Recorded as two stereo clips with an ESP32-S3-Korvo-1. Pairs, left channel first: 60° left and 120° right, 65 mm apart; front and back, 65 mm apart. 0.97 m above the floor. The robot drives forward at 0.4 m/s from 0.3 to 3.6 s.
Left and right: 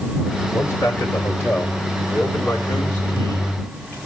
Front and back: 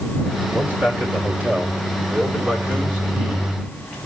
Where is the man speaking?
110° left, 3.5 m; by 4.0 s 125° left, 4.5 m.